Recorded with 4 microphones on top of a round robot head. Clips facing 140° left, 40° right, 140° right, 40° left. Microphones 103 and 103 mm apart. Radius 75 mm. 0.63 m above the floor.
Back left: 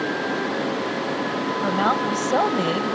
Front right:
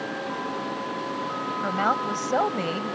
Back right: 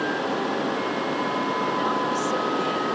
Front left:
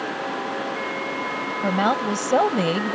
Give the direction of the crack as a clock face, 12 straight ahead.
No crack in this recording.